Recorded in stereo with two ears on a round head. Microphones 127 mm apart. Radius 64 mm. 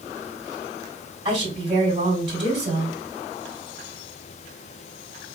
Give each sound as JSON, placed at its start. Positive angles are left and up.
{"t": 1.2, "sound": "a woman speaking", "side_deg": -35, "distance_m": 2.0}